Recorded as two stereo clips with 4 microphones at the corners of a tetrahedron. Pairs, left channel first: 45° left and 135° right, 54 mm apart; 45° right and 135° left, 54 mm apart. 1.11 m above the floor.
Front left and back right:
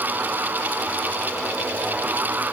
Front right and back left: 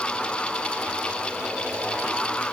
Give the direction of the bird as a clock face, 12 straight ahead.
I don't hear a bird.